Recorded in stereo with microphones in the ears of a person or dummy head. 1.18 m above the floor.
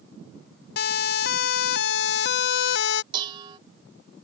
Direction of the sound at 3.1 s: 25° right (ahead or behind).